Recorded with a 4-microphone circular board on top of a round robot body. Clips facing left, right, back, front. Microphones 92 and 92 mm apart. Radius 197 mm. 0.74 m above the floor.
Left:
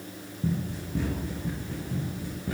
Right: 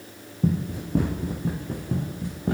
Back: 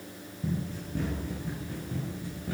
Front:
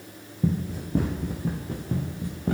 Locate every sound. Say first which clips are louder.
0.4 s running footsteps: right 5 dB, front 7 dB; 50° right, 3.5 m; by 2.5 s 45° right, 5 m